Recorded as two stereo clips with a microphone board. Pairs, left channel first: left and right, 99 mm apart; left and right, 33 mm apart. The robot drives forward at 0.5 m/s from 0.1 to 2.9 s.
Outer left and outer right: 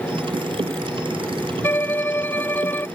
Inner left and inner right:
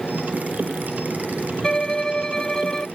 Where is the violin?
20° left (ahead or behind).